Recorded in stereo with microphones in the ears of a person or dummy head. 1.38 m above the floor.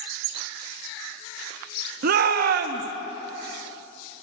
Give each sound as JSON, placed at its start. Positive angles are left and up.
{"t": 2.0, "sound": "a shout", "side_deg": -60, "distance_m": 0.8}